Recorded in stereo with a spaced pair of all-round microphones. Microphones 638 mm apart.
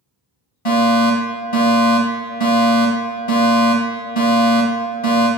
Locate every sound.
0.7 s a fire alarm: 50° left (ahead or behind), 2.5 m